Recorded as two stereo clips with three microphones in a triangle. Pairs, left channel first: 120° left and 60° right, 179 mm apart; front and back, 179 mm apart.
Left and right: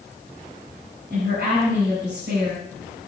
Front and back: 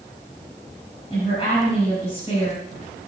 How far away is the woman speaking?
About 6.5 m.